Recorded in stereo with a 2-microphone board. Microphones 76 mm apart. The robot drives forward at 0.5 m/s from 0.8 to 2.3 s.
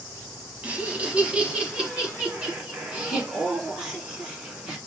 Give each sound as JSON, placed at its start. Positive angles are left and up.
{"t": 0.6, "sound": "laughter", "side_deg": -15, "distance_m": 1.4}